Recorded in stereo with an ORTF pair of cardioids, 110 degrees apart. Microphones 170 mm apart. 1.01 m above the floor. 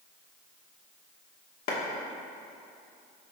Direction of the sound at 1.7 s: 60° left.